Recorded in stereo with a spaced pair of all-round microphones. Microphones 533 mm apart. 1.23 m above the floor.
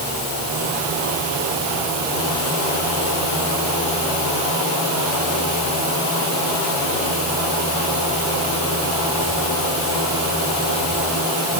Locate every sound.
Only background noise.